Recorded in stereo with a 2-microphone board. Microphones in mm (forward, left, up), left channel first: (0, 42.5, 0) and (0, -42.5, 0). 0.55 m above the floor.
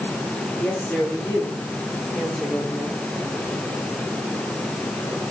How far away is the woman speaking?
About 8.5 m.